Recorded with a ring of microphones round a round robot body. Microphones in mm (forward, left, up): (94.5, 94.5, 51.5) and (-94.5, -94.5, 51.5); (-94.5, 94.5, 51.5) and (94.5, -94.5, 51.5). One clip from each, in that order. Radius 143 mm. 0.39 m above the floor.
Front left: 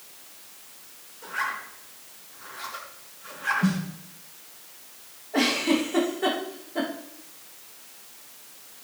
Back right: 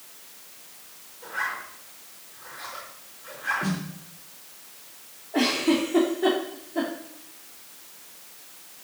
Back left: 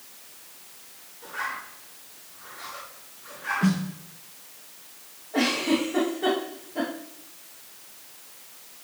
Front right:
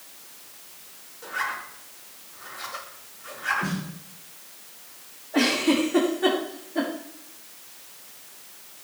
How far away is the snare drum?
About 4 m.